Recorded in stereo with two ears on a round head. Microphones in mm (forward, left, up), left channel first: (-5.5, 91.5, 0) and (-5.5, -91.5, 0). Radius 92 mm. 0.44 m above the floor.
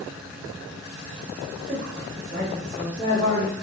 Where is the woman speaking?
55° right (ahead or behind), 1.8 m; by 3.5 s 20° right (ahead or behind), 1.7 m.